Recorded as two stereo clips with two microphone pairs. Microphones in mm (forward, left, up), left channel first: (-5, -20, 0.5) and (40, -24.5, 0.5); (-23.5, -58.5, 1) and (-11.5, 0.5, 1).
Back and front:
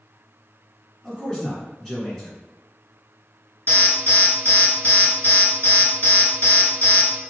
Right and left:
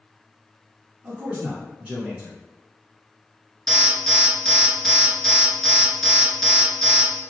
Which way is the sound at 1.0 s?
110° left.